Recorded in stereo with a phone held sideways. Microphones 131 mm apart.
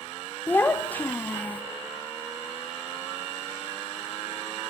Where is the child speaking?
15° left (ahead or behind), 0.6 m.